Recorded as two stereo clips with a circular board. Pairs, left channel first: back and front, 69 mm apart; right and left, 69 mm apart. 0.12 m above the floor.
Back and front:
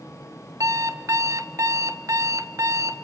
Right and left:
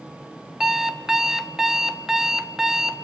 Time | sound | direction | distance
0.6 | an alarm clock | 10° left | 1.0 m